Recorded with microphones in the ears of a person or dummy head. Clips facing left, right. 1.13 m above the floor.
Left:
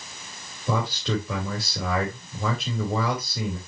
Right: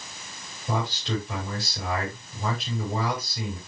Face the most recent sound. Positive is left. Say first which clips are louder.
# left 2 dB
turn(degrees=65)  # may be behind; listen again after turning